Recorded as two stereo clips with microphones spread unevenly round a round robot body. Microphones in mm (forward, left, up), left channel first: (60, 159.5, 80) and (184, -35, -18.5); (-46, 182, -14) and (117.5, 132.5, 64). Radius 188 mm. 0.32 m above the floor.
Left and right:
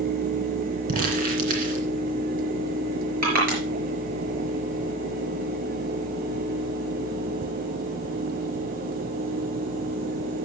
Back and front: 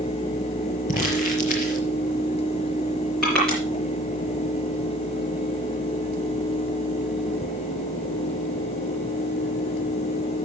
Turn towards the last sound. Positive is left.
turn(degrees=-115)